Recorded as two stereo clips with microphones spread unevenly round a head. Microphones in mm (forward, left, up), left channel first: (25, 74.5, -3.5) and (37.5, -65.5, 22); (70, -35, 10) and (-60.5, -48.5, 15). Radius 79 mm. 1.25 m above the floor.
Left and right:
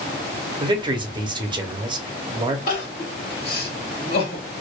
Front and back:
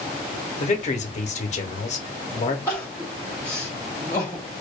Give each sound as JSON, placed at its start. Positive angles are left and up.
{"t": 0.6, "sound": "a man speaking", "azimuth_deg": -25, "distance_m": 0.8}
{"t": 2.7, "sound": "crying", "azimuth_deg": 80, "distance_m": 1.5}